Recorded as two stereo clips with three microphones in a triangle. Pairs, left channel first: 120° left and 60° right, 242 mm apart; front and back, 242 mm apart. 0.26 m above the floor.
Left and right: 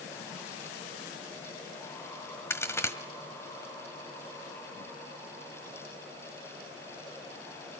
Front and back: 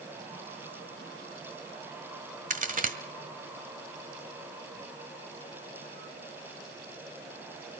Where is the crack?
170° right, 1.3 m.